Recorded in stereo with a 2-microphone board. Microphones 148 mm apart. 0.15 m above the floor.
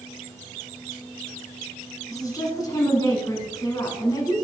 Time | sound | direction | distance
2.1 | a woman speaking | 25° left (ahead or behind) | 1.5 m